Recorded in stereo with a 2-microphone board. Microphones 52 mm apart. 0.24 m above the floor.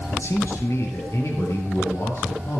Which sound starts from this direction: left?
A man speaking, at 0.1 s.